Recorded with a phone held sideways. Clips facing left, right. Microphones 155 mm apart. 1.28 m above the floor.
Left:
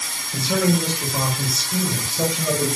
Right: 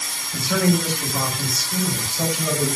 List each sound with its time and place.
0.3 s a man speaking: 25° left (ahead or behind), 6.5 m